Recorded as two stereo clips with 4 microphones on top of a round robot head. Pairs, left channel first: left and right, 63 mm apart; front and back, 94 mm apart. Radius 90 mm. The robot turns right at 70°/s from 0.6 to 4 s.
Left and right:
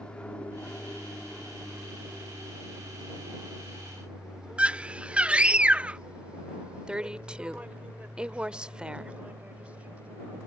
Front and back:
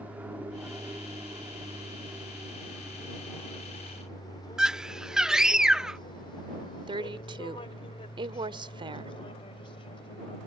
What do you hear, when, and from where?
0.0 s an aircraft: 140° left; by 10.5 s 20° right
4.6 s a scream: 115° right
6.9 s a woman speaking: 160° right